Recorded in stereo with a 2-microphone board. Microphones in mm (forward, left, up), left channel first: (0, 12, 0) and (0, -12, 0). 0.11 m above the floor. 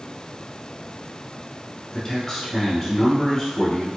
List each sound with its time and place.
1.9 s a man speaking: 25° left (ahead or behind), 1.3 m